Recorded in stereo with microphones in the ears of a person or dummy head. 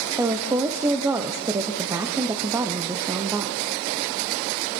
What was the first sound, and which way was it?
A woman speaking, 15° right (ahead or behind).